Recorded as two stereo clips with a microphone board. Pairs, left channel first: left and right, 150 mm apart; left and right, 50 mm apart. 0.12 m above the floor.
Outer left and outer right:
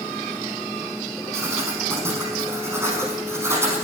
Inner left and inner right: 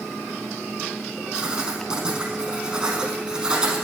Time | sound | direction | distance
1.3 | writing | 20° right (ahead or behind) | 5 m